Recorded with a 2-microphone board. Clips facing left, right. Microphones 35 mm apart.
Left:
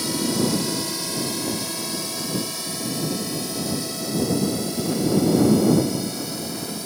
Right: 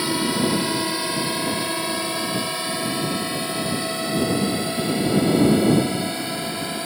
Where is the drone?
30° right (ahead or behind); by 6.9 s 35° right (ahead or behind).